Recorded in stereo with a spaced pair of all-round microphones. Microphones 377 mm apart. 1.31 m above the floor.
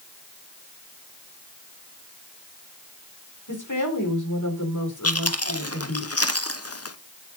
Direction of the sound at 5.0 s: 40° left (ahead or behind).